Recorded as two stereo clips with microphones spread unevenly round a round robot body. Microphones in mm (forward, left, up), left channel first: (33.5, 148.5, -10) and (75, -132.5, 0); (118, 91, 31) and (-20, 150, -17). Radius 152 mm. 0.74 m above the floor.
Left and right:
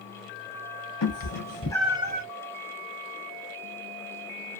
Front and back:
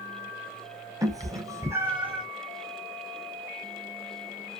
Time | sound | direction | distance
1.0 | a cat meowing | 75° left | 0.8 m